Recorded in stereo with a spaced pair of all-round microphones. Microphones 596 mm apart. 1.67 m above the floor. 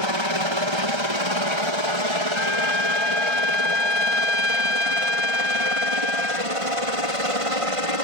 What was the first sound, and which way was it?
A helicopter, 50° right (ahead or behind).